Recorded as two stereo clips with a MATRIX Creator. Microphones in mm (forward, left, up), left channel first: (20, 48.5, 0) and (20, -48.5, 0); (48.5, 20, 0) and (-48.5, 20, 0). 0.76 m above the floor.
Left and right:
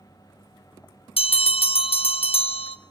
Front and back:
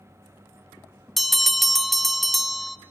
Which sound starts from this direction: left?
A bell, at 1.2 s.